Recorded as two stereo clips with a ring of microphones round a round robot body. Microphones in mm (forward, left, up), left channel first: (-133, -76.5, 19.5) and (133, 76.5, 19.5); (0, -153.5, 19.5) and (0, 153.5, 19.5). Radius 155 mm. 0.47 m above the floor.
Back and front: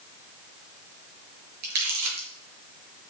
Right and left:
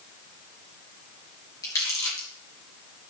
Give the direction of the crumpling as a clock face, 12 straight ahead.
12 o'clock.